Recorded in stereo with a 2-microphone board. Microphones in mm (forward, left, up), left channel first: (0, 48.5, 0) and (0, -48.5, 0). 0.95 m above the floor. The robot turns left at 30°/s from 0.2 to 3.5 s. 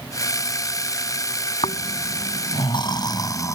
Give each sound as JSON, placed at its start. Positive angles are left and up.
{"t": 1.6, "sound": "snoring", "azimuth_deg": 90}